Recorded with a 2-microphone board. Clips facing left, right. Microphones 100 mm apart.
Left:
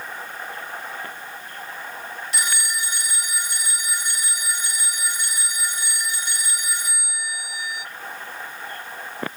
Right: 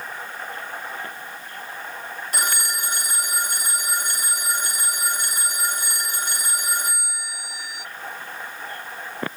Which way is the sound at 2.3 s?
45° right (ahead or behind).